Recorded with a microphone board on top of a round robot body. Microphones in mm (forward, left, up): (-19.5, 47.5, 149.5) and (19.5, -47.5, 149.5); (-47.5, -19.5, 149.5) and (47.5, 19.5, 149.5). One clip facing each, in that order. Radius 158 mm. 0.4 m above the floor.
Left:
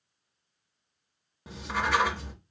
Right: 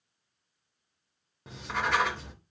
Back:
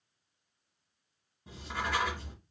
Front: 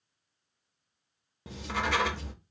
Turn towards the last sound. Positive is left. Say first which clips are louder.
# left 1 dB, front 4 dB
turn(degrees=25)